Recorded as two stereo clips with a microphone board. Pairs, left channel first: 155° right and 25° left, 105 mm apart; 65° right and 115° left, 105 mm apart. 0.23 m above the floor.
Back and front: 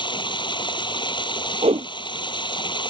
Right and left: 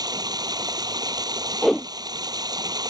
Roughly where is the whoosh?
Ahead left.